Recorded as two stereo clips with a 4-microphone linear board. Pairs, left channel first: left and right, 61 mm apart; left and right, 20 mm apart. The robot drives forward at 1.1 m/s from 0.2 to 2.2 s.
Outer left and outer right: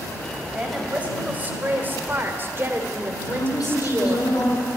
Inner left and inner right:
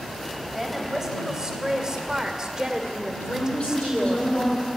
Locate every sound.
0.5 s a woman speaking: 20° right (ahead or behind), 3.5 m; by 4.2 s 35° right (ahead or behind), 2 m
3.2 s a woman speaking: 75° left (ahead or behind), 7 m